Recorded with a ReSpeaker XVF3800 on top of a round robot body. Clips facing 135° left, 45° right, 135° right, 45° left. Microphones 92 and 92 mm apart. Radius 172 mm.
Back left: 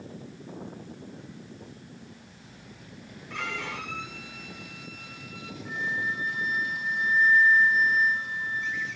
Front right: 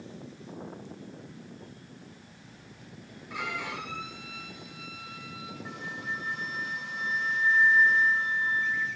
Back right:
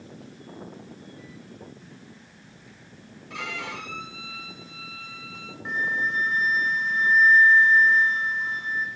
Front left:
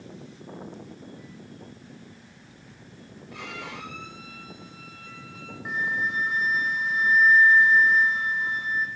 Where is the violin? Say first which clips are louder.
Even, back right 4 dB; 130° right, 5 m.